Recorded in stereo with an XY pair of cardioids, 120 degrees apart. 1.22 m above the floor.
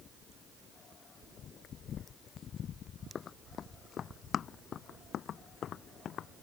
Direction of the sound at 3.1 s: 40° left.